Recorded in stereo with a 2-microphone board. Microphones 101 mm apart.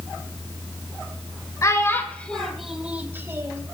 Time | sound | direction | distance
1.6 | a child speaking | 30° left (ahead or behind) | 1.3 m